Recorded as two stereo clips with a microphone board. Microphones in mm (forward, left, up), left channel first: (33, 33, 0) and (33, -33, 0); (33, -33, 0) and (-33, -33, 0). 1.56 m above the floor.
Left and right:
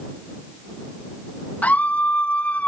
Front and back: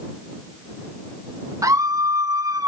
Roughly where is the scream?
Behind left.